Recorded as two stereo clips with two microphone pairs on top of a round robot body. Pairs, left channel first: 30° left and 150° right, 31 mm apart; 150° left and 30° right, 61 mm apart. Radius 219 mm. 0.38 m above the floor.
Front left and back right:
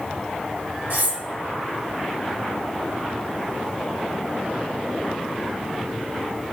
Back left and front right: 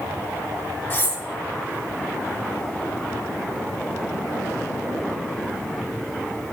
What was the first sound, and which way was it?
Cutlery clinking, 155° right.